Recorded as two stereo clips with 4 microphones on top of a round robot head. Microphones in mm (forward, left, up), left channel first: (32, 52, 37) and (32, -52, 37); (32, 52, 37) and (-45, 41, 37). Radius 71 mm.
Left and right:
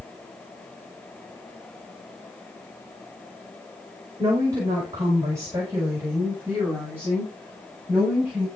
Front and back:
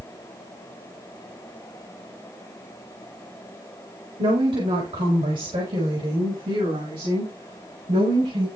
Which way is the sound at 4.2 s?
150° right.